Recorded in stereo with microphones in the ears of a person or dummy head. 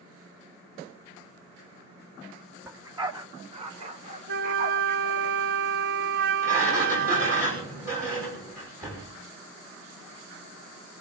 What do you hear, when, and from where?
2.6 s a dog barking: 10° right (ahead or behind), 1.4 m; by 5.3 s 55° right (ahead or behind), 3.5 m
4.3 s a flute: 60° right (ahead or behind), 0.6 m
6.4 s a sliding door: 15° right (ahead or behind), 6 m